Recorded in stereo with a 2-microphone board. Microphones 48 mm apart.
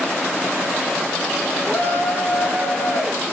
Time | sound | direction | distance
1.6 | a shout | 60° left (ahead or behind) | 4 m